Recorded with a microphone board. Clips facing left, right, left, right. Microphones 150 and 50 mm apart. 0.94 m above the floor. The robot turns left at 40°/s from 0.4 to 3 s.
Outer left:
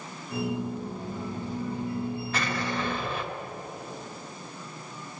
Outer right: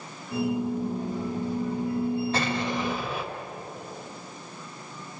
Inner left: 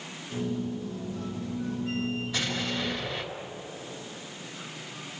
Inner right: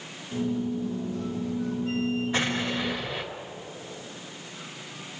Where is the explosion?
30° right (ahead or behind), 3.5 m; by 3.3 s 5° right (ahead or behind), 3.5 m.